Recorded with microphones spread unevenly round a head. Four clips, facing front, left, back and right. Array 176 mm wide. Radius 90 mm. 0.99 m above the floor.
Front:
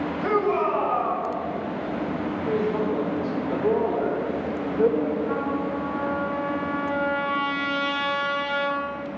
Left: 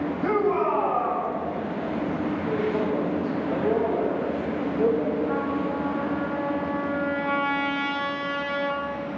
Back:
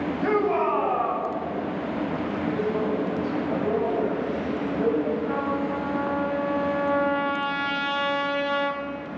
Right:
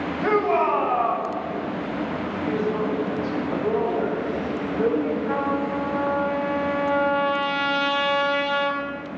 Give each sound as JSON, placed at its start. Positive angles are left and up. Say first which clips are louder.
{"t": 0.2, "sound": "a shout", "louder": "right 3 dB, even", "azimuth_deg": -75, "distance_m": 4.5}
{"t": 2.5, "sound": "a woman speaking", "louder": "right 2 dB, front 2 dB", "azimuth_deg": -15, "distance_m": 3.5}
{"t": 5.3, "sound": "a trumpet", "louder": "right 2 dB, even", "azimuth_deg": -80, "distance_m": 3.5}